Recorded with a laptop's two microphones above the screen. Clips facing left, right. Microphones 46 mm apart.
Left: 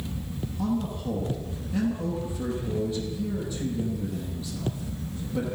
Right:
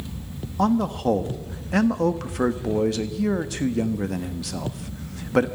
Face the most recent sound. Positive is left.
turn(degrees=-80)